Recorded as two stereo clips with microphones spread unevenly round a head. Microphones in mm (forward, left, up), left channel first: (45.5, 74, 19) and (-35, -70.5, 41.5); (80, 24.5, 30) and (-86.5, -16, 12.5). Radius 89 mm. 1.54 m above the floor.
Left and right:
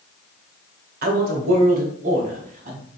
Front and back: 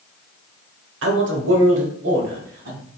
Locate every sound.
1.0 s a man speaking: 150° right, 1.0 m; by 2.9 s 165° right, 1.9 m